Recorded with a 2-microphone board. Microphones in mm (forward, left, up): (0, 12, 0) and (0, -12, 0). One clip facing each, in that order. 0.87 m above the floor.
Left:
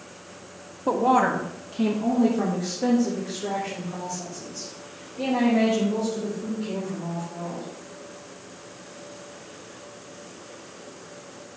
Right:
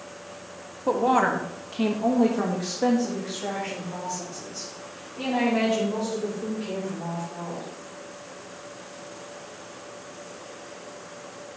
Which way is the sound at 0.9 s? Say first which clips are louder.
Left 1 dB; 5° left (ahead or behind).